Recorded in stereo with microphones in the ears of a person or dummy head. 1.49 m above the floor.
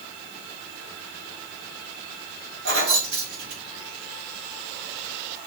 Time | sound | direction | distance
2.6 | keys jangling | 70° right (ahead or behind) | 1.7 m